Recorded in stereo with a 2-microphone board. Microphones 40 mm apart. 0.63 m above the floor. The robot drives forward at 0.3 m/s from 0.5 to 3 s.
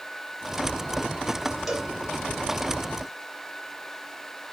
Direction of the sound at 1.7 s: 10° right (ahead or behind).